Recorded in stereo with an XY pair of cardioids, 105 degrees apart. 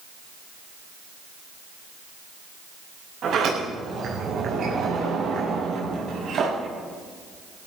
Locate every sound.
3.2 s a sliding door: 55° right, 8 m